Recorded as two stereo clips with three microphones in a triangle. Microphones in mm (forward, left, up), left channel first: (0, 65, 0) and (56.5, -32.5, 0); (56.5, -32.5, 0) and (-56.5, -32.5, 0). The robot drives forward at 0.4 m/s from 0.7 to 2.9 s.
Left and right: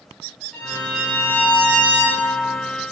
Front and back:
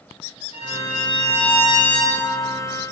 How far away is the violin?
About 8 m.